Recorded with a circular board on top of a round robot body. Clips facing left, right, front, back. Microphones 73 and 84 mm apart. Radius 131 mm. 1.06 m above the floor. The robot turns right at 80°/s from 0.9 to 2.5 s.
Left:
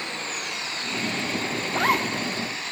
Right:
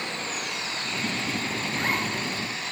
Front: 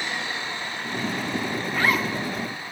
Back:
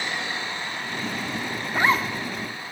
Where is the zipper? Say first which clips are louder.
Left 6 dB, back 2 dB; 95° left, 1.2 m; by 2.1 s 130° left, 1.2 m.